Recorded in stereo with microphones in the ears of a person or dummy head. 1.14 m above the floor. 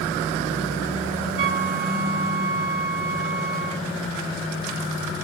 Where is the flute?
80° right, 3 m.